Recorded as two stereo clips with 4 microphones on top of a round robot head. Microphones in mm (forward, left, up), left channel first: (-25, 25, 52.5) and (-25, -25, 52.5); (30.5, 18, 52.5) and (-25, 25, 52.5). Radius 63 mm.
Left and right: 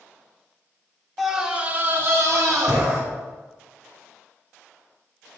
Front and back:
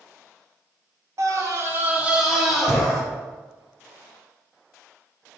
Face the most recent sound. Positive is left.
turn(degrees=-90)